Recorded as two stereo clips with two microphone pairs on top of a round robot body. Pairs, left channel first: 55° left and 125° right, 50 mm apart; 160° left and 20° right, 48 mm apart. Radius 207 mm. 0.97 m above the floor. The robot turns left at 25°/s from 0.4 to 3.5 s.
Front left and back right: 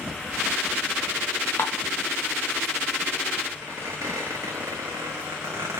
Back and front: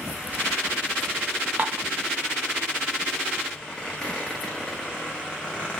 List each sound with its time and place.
1.6 s dishes clattering: 35° left, 0.5 m; by 1.9 s 25° left, 0.5 m
3.6 s a squeak: 135° right, 0.6 m